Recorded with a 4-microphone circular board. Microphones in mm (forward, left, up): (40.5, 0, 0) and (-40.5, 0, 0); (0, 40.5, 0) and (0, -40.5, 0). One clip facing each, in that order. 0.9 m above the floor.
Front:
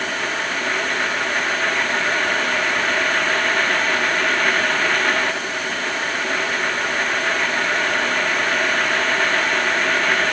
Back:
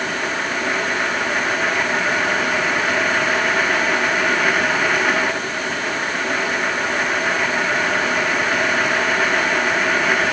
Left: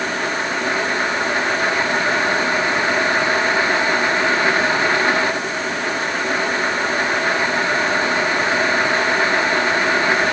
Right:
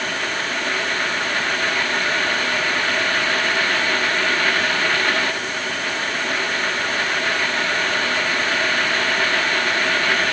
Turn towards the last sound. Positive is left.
No sound to turn to.